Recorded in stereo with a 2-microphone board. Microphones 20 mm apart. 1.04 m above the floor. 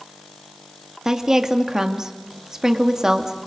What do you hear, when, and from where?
1.1 s a woman speaking: 30° right (ahead or behind), 2 m